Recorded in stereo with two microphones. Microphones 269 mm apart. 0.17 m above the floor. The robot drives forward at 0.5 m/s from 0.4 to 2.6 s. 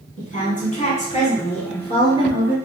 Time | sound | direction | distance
0.2 | a woman speaking | 25° left (ahead or behind) | 1.2 m